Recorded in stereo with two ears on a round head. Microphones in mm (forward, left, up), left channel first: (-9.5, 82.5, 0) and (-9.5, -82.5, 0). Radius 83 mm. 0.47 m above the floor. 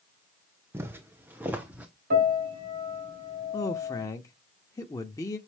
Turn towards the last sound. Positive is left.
turn(degrees=20)  # may be behind; listen again after turning